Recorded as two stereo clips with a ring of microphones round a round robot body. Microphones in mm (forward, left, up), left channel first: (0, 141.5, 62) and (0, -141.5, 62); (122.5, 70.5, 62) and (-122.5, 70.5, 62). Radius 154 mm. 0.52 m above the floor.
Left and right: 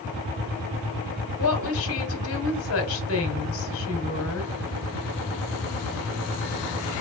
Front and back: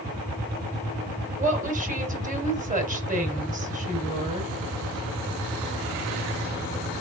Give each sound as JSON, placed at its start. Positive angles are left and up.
{"t": 1.4, "sound": "a woman speaking", "azimuth_deg": 125, "distance_m": 2.0}